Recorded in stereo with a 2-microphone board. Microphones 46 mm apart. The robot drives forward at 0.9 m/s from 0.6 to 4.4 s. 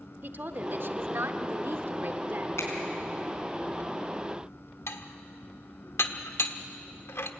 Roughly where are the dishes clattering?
Left.